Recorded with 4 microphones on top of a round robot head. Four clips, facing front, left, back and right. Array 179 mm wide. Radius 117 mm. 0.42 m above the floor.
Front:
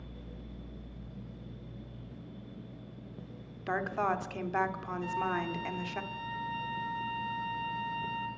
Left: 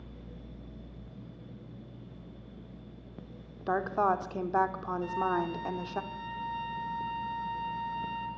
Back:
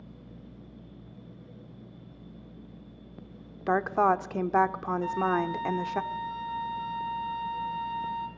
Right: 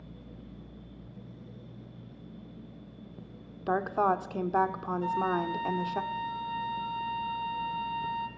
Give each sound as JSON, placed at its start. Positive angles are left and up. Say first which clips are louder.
{"t": 3.7, "sound": "a woman speaking", "louder": "right 1 dB, back 7 dB", "azimuth_deg": -175, "distance_m": 1.4}
{"t": 5.0, "sound": "a flute", "louder": "right 1 dB, back 5 dB", "azimuth_deg": -135, "distance_m": 3.0}